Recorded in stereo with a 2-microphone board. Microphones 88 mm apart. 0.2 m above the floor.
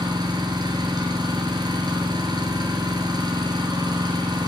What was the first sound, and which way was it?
An engine running, 55° right (ahead or behind).